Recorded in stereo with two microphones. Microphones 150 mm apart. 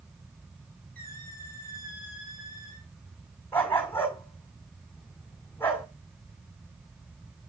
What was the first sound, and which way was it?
A squeak, 80° right.